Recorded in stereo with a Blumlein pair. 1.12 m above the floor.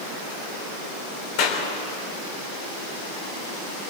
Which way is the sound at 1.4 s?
45° left.